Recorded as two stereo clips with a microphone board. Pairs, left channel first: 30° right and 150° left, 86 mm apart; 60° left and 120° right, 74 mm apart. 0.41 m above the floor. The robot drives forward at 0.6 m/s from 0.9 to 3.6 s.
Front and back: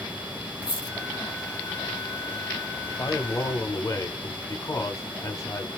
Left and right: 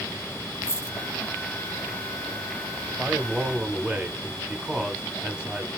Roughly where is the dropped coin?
Ahead.